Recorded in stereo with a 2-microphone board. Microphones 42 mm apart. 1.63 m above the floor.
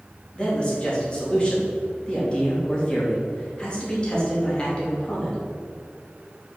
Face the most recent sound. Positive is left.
turn(degrees=25)  # may be behind; listen again after turning